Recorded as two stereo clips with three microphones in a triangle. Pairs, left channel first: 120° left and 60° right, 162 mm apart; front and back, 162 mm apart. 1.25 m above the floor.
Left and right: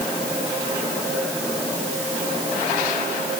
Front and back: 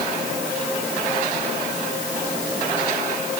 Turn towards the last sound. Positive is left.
No sound to turn to.